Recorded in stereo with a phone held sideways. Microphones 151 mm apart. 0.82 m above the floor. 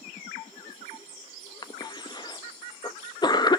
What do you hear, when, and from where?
1.6 s a cough: 30° left (ahead or behind), 0.7 m